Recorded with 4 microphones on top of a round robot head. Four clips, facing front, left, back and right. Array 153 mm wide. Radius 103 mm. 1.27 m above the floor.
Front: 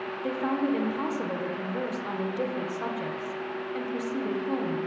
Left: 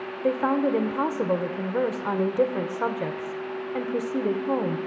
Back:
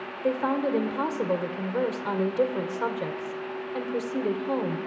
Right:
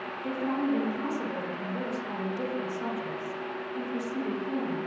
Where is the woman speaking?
110° left, 1.1 m.